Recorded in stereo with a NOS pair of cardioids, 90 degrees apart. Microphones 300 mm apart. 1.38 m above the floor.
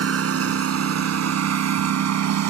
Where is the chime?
I don't hear a chime.